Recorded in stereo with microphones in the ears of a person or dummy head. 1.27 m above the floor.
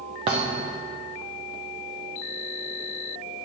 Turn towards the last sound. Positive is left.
turn(degrees=-25)  # may be behind; listen again after turning